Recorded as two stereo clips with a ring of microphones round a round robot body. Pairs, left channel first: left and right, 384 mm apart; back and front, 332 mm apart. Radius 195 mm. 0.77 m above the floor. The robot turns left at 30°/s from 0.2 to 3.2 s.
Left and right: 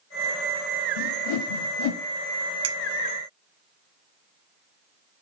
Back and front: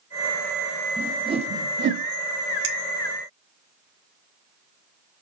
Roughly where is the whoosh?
Left.